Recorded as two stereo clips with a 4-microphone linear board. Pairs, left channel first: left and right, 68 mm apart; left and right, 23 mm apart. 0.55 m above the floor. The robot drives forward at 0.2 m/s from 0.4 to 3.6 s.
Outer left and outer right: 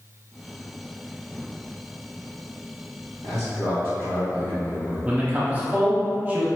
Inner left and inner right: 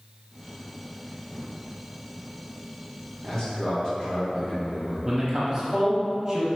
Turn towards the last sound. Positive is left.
turn(degrees=-20)  # may be behind; listen again after turning